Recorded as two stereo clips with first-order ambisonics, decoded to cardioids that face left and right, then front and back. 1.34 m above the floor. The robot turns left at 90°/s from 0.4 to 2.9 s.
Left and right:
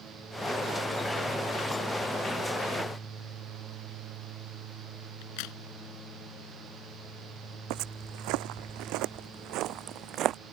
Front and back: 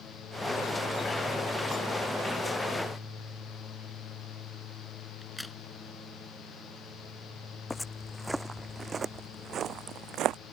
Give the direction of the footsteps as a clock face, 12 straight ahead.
3 o'clock.